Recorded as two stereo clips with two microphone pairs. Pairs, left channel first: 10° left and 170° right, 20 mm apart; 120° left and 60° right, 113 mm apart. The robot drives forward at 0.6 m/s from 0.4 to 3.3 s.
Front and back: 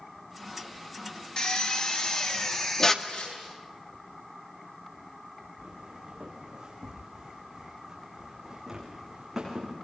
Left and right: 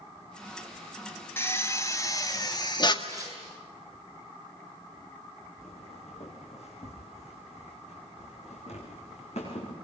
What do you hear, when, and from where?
1.4 s a drill: 50° left, 2.5 m; by 3.0 s 75° left, 2 m
3.0 s tearing paper: 5° right, 7.5 m
5.6 s footsteps: 135° left, 5.5 m; by 9.7 s 105° left, 7 m